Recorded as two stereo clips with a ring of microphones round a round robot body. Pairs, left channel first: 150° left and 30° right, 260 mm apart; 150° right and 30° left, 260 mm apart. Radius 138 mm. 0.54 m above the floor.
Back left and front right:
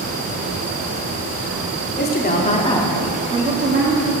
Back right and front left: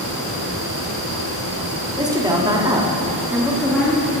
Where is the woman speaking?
105° left, 1.6 m; by 4.1 s 65° right, 1.5 m.